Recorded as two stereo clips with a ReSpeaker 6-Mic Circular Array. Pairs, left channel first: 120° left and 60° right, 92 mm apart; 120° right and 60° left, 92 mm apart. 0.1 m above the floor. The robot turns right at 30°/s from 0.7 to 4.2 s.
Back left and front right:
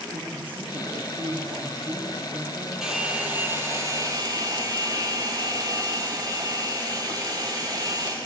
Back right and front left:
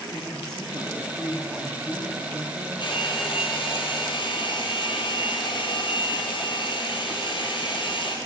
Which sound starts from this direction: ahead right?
A woman speaking, at 0.1 s.